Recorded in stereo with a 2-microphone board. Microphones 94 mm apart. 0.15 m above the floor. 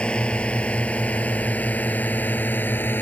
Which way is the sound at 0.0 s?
10° left (ahead or behind).